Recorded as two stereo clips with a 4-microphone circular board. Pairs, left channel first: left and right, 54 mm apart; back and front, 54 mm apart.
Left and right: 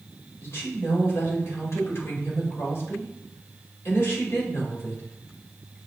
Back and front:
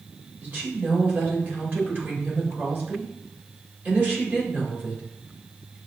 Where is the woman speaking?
50° left, 2.0 m.